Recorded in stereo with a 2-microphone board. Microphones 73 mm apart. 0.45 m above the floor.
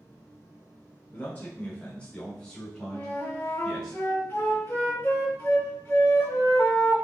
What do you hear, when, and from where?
1.1 s a man speaking: 30° left (ahead or behind), 1.2 m; by 3.9 s 5° left (ahead or behind), 2.5 m
2.9 s a flute: 30° left (ahead or behind), 1.6 m